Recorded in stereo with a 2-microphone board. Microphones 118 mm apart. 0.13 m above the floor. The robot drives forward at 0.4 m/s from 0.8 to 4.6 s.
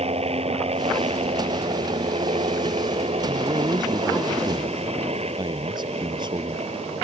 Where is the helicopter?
60° right (ahead or behind).